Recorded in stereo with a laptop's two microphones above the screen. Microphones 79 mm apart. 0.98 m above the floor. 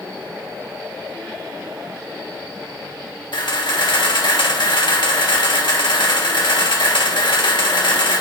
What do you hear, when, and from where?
3.3 s a camera shutter: 85° left, 1.8 m